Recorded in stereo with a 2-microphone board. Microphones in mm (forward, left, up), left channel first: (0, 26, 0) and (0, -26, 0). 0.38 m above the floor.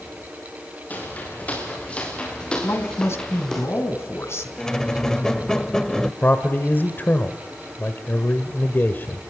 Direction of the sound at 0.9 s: 35° left (ahead or behind).